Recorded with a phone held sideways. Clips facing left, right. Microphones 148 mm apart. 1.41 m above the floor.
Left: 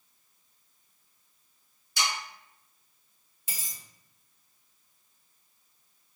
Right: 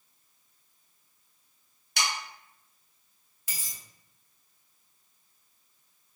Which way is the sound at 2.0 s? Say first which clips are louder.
Even; 70° right (ahead or behind).